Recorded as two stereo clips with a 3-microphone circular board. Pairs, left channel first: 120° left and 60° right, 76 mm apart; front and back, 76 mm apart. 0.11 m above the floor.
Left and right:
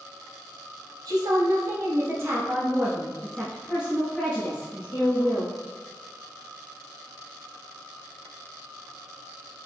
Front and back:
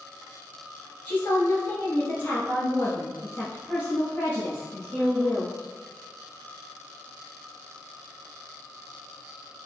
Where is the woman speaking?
60° right, 1.7 m; by 5.5 s 70° left, 2 m.